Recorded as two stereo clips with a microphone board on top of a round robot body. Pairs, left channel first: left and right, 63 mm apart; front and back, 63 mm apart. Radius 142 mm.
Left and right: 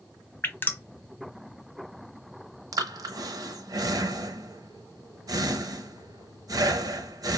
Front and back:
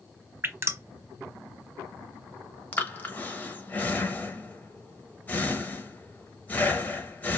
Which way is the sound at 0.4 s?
140° left.